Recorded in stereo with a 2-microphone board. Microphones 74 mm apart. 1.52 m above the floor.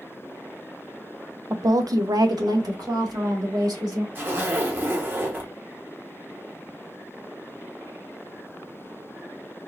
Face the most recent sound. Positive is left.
turn(degrees=-30)  # may be behind; listen again after turning